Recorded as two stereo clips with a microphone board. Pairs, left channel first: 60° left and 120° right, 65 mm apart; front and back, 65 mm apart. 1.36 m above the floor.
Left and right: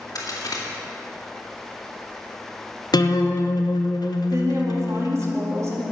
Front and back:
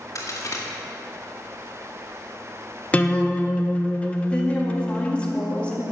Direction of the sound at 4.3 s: 75° right.